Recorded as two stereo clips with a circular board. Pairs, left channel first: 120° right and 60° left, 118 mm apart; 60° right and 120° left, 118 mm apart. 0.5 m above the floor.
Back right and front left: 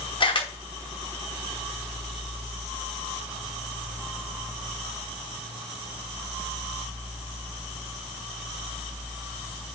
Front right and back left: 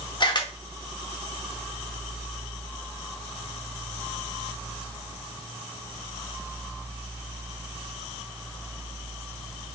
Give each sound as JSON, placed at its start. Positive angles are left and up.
{"t": 0.2, "sound": "a camera shutter", "azimuth_deg": -95, "distance_m": 0.7}